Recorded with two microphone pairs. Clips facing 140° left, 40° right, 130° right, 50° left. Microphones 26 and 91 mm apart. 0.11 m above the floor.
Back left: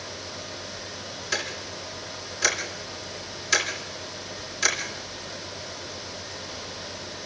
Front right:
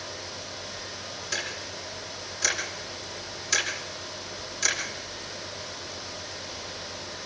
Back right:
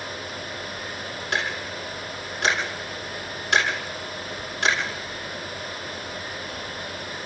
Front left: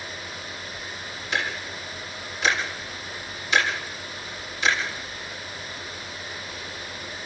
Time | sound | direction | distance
1.3 | ticking | 150° right | 5 m